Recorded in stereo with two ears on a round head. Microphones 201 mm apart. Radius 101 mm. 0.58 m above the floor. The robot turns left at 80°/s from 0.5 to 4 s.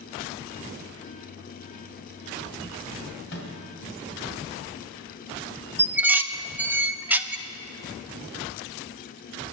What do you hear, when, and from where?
3.3 s a microwave: 55° left (ahead or behind), 2.5 m; by 3.5 s 70° left (ahead or behind), 2.5 m
5.8 s dishes clattering: 10° right (ahead or behind), 0.5 m